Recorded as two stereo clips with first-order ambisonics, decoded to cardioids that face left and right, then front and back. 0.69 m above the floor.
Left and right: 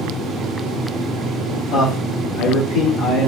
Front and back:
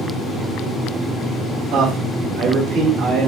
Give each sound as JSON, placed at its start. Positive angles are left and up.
{"t": 1.7, "sound": "a man speaking", "azimuth_deg": 135, "distance_m": 4.5}